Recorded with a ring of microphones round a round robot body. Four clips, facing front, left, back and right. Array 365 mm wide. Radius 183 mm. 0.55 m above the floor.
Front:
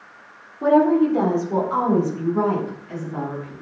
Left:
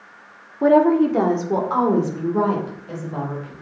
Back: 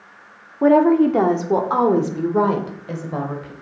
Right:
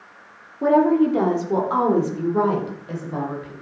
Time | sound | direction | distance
0.6 | a woman speaking | 150° left | 1.4 m